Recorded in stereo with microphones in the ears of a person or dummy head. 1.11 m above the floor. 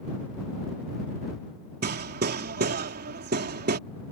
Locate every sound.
1.8 s hammering: 45° right (ahead or behind)